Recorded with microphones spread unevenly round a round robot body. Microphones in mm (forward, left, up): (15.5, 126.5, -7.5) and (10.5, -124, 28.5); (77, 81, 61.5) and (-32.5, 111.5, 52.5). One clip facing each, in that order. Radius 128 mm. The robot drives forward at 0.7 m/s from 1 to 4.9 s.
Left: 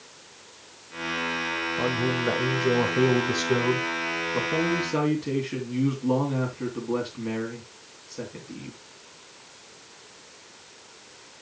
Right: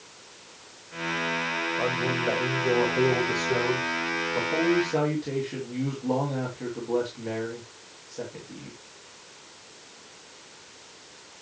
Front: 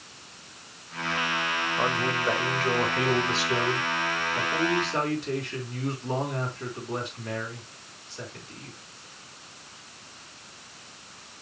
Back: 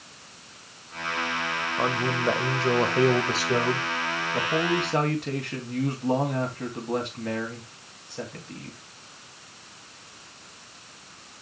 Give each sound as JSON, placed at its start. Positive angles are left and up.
{"t": 1.8, "sound": "a man speaking", "azimuth_deg": 90, "distance_m": 1.5}